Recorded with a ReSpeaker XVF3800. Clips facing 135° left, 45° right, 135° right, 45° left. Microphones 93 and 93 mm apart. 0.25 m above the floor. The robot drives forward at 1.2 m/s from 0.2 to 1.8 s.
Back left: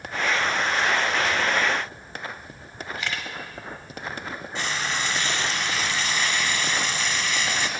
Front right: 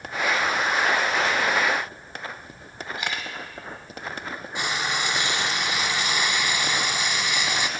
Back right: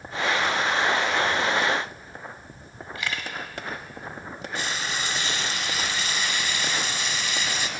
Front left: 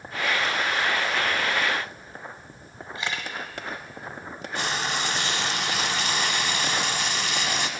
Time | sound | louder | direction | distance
3.0 | a camera shutter | front right 1 dB, even | 5° left | 0.9 m
4.5 | frying | front right 1 dB, front left 3 dB | 25° left | 0.7 m